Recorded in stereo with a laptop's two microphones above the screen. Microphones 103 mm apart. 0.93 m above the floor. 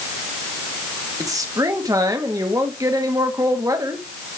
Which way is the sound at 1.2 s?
35° right (ahead or behind).